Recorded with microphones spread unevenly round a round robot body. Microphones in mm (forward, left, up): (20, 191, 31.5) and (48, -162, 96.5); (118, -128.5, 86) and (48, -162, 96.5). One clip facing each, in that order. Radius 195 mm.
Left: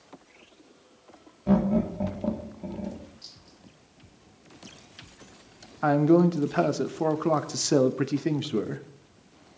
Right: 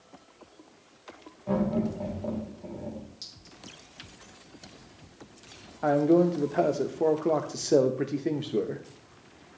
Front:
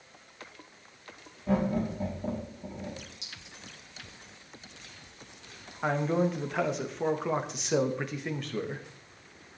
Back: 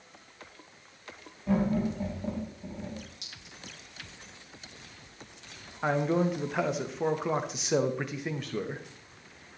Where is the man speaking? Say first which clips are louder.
Left 2 dB, back 1 dB; 110° left, 0.8 m.